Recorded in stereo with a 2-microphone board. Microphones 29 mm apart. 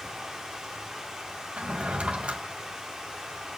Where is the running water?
15° right (ahead or behind), 4 m.